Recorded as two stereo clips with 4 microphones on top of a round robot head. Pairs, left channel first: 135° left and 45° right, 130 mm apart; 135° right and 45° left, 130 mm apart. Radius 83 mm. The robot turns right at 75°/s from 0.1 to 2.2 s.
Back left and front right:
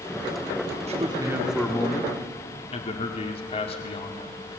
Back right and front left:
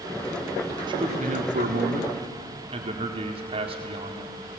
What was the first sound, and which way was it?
A man speaking, 10° right.